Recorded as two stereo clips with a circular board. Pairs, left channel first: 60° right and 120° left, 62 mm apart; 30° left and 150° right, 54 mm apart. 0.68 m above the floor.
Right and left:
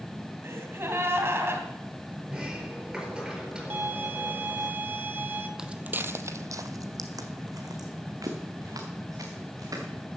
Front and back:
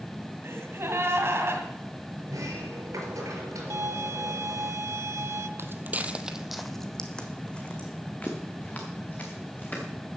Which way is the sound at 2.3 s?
160° right.